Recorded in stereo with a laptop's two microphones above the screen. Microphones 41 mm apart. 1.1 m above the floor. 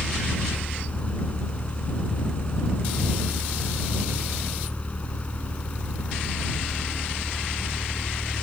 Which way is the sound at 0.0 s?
30° left (ahead or behind).